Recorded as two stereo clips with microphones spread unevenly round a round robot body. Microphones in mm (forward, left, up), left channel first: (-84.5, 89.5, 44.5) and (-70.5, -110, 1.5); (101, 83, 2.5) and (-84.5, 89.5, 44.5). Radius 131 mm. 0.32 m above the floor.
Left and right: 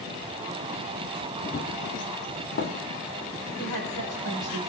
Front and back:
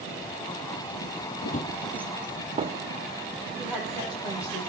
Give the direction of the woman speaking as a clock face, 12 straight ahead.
9 o'clock.